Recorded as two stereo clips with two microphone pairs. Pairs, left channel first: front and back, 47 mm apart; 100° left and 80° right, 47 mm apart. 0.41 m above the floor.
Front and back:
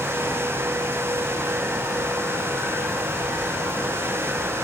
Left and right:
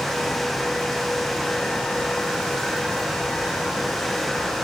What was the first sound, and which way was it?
Only background noise.